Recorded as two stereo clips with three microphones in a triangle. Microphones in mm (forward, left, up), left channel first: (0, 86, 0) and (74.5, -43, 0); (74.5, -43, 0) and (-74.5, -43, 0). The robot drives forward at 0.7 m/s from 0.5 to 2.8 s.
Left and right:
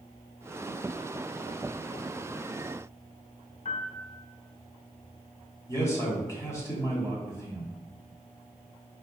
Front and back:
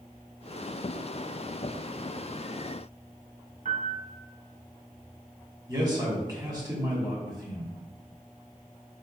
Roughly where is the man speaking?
Behind.